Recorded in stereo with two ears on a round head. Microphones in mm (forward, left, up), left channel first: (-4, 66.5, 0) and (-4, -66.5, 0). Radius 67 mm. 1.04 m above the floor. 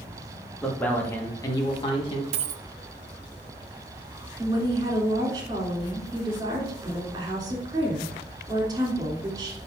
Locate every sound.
0.6 s a man speaking: 5° left (ahead or behind), 1.5 m; by 2.2 s 40° left (ahead or behind), 1.5 m
2.3 s a dropped coin: 45° right (ahead or behind), 0.6 m
4.4 s a woman speaking: 30° right (ahead or behind), 3 m